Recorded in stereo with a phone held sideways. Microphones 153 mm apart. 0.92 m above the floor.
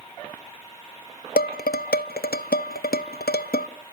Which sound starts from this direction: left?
Dishes clattering, at 1.4 s.